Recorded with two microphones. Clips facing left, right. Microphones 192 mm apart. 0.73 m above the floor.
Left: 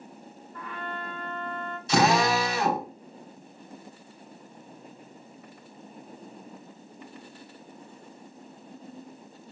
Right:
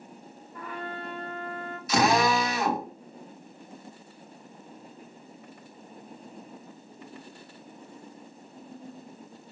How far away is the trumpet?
About 1.1 m.